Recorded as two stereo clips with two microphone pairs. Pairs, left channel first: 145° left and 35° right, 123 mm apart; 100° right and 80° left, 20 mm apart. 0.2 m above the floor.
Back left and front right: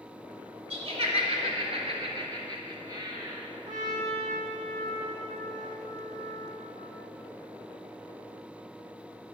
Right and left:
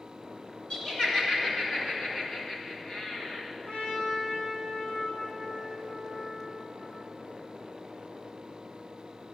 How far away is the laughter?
About 2.5 m.